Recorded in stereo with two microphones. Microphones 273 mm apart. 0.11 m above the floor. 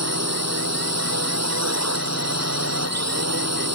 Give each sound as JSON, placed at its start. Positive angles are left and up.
{"t": 0.0, "sound": "a drone", "side_deg": -70}